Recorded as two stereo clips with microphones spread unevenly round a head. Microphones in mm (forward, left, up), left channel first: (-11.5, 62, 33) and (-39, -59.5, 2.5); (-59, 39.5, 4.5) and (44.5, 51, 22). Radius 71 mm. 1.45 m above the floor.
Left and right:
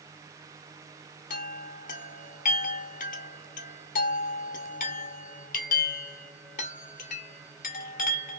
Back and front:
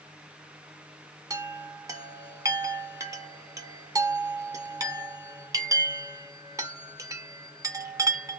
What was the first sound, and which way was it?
A chime, 60° left.